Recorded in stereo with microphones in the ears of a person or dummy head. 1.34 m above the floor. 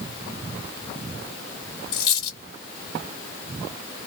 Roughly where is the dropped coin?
Left.